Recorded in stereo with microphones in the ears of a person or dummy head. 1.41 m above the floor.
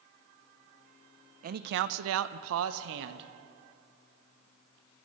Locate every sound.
1.4 s a man speaking: 40° right (ahead or behind), 0.7 m; by 3.3 s 60° right (ahead or behind), 1.2 m